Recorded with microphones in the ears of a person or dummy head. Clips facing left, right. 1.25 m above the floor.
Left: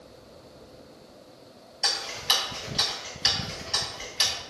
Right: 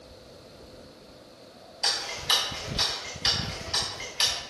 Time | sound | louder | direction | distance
1.8 | ticking | left 1 dB | 10° left (ahead or behind) | 1.5 m